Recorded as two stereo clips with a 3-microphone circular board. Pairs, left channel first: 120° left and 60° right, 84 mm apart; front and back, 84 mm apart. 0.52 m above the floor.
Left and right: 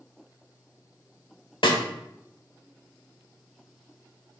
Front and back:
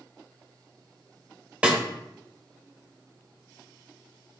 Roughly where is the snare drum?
Left.